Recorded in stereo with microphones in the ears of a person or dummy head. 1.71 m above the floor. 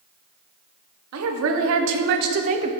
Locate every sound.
1.1 s a woman speaking: 85° right, 1.1 m; by 2.7 s 30° right (ahead or behind), 0.6 m